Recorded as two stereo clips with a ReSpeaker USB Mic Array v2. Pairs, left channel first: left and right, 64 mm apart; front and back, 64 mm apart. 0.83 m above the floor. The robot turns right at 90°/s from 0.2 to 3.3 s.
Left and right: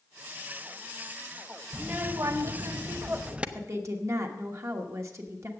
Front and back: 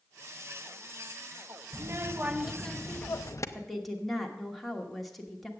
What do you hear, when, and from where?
1.7 s a child speaking: 165° right, 0.7 m; by 3.5 s 20° right, 0.7 m
3.5 s a woman speaking: 90° right, 1.3 m